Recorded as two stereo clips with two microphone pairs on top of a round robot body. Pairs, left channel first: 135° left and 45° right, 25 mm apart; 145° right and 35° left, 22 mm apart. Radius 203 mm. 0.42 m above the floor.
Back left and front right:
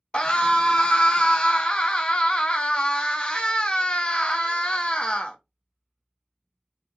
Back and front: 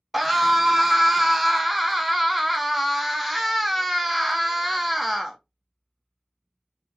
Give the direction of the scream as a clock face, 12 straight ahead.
8 o'clock.